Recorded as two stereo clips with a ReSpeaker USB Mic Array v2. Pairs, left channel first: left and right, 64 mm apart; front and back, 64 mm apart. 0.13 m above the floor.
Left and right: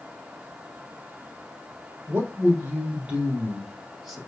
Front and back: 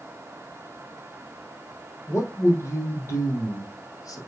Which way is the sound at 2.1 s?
45° right.